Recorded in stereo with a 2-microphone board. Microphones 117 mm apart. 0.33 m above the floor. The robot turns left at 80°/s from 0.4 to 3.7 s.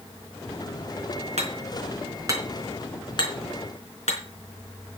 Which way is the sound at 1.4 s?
70° right (ahead or behind).